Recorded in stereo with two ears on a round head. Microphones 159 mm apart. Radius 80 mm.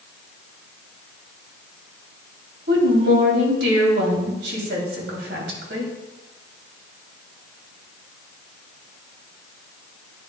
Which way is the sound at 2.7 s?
70° right (ahead or behind).